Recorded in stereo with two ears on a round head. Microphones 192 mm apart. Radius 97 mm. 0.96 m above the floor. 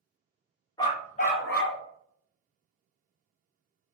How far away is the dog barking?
About 0.6 m.